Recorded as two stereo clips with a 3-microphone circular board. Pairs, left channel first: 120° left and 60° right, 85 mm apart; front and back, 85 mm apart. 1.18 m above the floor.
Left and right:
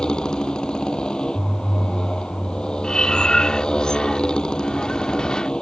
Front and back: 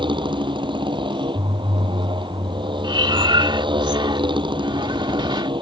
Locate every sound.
0.0 s a motorcycle: 160° right
2.8 s breathing: 160° right